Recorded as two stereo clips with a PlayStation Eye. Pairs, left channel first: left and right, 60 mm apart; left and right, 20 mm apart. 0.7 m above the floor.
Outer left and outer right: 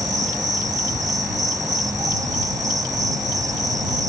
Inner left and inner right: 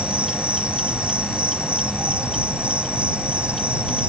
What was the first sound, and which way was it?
An insect, 80° right.